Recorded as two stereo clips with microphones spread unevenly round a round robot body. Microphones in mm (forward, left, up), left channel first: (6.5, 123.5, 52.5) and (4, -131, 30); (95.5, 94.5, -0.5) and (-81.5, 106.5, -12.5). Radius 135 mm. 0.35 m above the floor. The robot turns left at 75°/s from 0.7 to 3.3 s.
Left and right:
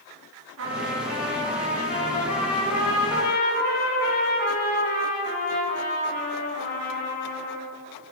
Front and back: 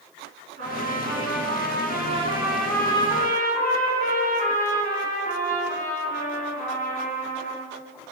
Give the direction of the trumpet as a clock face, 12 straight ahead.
4 o'clock.